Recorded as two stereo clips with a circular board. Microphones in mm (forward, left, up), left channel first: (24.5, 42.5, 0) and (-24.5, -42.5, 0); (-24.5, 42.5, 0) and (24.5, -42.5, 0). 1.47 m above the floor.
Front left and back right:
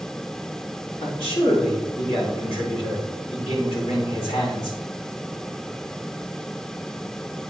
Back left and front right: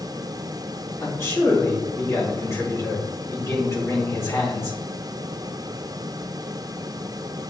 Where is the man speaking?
65° left, 4 m.